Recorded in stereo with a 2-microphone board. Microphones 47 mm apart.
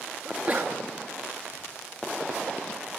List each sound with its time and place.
0.2 s a sneeze: 35° right (ahead or behind), 4.5 m